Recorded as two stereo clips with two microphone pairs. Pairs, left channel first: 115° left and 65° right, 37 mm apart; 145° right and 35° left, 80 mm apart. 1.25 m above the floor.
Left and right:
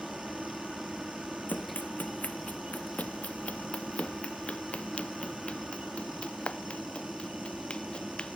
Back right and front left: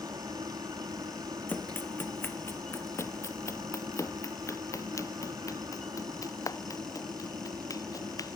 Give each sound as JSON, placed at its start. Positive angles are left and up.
{"t": 0.0, "sound": "a helicopter", "azimuth_deg": 20}
{"t": 1.5, "sound": "running footsteps", "azimuth_deg": 150}